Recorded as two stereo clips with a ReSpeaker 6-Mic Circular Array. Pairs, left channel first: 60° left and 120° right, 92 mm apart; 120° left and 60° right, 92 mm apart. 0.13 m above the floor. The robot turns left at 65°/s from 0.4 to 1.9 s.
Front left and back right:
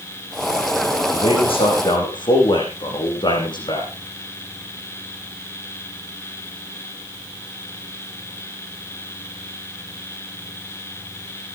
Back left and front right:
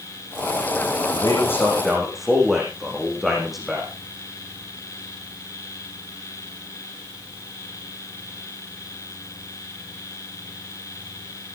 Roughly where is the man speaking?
Left.